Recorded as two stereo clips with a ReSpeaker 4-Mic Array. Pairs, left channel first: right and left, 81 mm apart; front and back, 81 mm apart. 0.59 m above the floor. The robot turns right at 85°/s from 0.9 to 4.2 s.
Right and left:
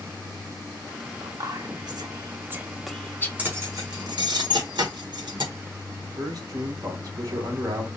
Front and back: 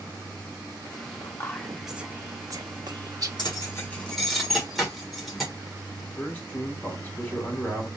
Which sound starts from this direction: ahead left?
Whispering, at 1.2 s.